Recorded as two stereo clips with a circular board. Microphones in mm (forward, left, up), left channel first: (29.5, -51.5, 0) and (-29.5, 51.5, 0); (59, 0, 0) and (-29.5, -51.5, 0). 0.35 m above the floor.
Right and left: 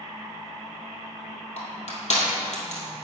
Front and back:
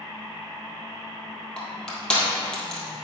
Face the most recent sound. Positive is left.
turn(degrees=-50)